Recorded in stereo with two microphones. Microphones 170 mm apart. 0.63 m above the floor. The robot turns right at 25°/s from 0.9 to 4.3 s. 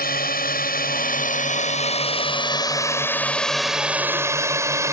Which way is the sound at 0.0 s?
60° left (ahead or behind).